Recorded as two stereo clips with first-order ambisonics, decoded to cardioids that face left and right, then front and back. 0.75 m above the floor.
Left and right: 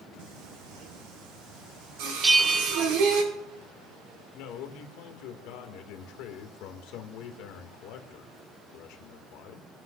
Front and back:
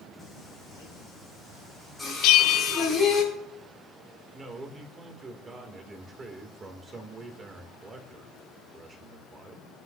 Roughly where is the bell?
Ahead.